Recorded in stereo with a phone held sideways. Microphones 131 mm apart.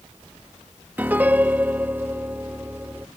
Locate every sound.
1.0 s a piano: 15° right (ahead or behind)